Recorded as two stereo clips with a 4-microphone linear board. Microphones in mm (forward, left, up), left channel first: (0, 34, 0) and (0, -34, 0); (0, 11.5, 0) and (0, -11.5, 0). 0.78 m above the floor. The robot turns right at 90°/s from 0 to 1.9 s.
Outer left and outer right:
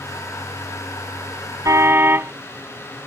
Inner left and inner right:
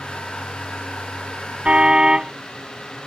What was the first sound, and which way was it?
A car horn, 60° right (ahead or behind).